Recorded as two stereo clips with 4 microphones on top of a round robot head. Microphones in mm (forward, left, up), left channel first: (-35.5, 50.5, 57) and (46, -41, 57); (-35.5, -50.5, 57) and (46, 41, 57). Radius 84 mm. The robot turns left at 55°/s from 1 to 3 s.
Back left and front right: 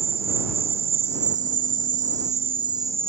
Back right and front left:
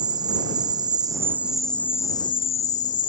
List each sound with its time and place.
0.0 s an insect: 10° right; by 3.1 s 120° right